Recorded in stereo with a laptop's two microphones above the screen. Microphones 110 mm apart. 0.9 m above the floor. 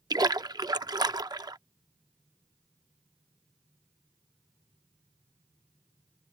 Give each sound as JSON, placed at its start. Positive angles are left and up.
{"t": 0.1, "sound": "a splash", "side_deg": -40}